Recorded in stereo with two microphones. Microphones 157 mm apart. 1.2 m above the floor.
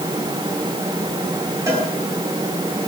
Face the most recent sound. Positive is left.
turn(degrees=-20)  # may be behind; listen again after turning